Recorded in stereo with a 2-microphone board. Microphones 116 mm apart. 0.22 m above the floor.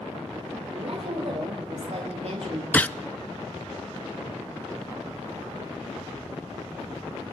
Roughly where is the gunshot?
Centre.